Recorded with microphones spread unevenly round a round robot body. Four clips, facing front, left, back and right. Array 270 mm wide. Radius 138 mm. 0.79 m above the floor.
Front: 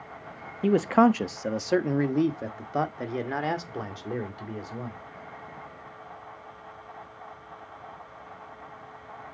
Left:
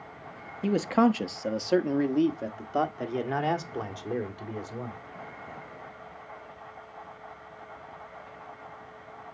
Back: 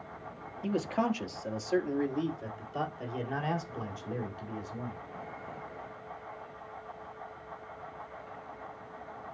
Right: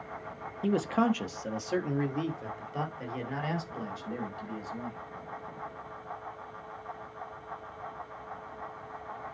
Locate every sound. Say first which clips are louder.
0.6 s a man speaking: left 4 dB, front 10 dB; 10° left, 1.0 m; by 5.0 s 45° left, 3 m